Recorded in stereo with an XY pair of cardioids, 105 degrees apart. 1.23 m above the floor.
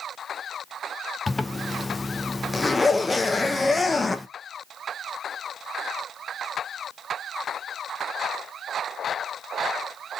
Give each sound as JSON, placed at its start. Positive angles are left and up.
{"t": 1.3, "sound": "a zipper", "azimuth_deg": 25, "distance_m": 0.5}